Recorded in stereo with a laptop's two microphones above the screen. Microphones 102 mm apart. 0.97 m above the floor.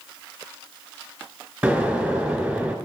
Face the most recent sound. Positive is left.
turn(degrees=-20)  # may be behind; listen again after turning